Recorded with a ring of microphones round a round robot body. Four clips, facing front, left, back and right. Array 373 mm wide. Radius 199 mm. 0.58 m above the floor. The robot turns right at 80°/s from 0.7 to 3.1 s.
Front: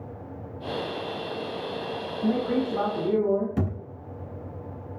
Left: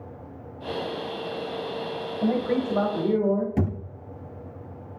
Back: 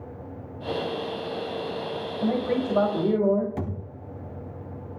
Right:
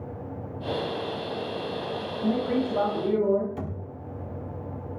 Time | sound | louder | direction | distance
2.2 | a man speaking | left 1 dB, even | 125° left | 4 m
3.6 | a thud | left 8 dB, front 3 dB | 60° left | 1.8 m